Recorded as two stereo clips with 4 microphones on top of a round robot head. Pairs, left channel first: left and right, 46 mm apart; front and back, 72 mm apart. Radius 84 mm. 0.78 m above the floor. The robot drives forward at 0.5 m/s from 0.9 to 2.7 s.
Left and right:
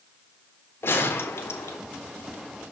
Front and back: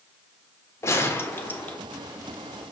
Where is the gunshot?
50° left, 1.3 m; by 1.8 s 70° left, 1.1 m.